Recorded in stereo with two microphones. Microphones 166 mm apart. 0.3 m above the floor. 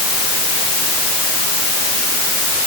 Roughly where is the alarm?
I don't hear an alarm.